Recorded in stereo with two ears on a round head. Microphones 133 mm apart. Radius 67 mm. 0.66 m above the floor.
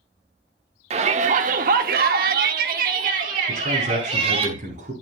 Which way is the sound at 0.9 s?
45° right (ahead or behind).